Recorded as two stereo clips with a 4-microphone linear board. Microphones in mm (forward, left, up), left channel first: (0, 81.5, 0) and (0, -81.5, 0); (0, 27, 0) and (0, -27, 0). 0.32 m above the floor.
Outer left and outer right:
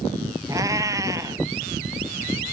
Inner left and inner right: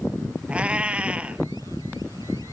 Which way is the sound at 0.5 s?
20° right (ahead or behind).